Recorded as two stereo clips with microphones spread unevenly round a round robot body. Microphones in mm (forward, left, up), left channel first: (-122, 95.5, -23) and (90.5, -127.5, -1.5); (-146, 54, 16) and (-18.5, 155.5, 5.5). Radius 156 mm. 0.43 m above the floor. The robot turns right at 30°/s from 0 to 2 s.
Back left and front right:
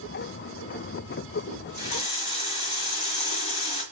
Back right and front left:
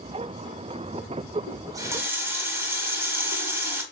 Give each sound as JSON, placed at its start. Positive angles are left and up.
{"t": 1.5, "sound": "a running tap", "azimuth_deg": 100, "distance_m": 1.8}